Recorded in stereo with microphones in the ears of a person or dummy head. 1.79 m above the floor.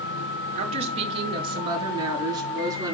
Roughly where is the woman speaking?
Right.